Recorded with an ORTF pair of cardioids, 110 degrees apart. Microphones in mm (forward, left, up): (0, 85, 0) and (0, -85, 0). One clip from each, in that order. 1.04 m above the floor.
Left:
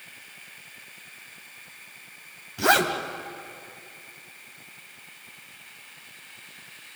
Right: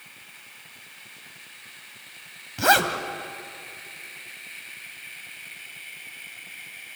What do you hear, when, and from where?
2.6 s a zipper: 15° right, 2.5 m